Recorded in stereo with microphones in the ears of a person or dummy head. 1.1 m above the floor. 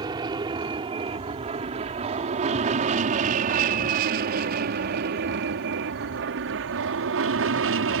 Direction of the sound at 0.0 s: 25° right (ahead or behind).